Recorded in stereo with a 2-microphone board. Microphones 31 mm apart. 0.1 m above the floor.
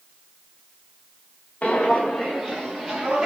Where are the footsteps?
45° left (ahead or behind), 0.6 m; by 3.3 s 15° right (ahead or behind), 1.4 m.